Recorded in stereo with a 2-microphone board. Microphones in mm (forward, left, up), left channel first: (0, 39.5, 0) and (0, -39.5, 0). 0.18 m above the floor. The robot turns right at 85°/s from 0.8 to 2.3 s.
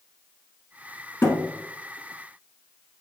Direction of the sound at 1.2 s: 35° left (ahead or behind).